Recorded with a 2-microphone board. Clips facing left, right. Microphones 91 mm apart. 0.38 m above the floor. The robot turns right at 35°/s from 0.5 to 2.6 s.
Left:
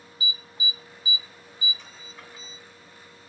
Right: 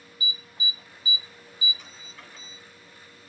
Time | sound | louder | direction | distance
0.2 | an alarm | left 1 dB | 35° right (ahead or behind) | 0.8 m